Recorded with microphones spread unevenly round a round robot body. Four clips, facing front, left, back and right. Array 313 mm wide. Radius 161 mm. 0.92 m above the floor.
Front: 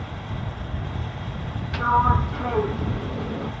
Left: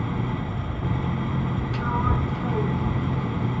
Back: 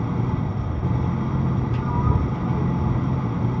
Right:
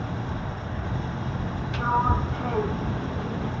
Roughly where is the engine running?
Behind.